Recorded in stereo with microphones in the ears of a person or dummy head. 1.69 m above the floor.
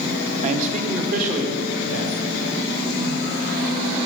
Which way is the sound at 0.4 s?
40° right (ahead or behind).